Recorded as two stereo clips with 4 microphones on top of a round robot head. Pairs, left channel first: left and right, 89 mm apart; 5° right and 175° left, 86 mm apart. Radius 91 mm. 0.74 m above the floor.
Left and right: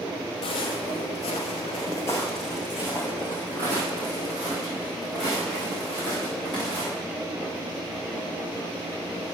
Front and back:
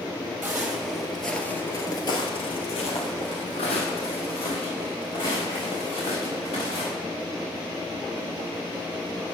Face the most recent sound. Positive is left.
turn(degrees=-35)